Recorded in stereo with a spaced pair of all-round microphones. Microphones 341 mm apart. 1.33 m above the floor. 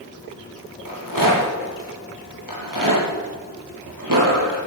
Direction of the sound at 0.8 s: 65° right (ahead or behind).